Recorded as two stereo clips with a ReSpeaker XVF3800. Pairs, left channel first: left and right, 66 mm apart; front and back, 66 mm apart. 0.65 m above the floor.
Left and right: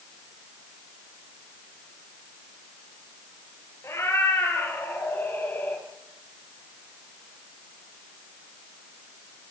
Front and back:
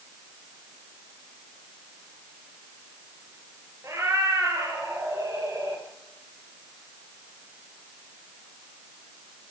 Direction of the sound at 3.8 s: 140° left.